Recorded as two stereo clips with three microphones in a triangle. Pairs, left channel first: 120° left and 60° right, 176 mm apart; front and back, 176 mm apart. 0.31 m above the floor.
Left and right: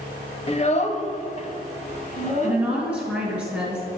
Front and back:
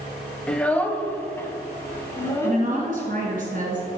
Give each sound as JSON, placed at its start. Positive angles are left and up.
{"t": 0.5, "sound": "a child speaking", "azimuth_deg": 80, "distance_m": 0.6}
{"t": 2.4, "sound": "a woman speaking", "azimuth_deg": -145, "distance_m": 3.0}